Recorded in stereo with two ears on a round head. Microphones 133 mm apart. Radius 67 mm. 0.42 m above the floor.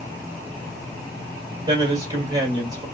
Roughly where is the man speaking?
Right.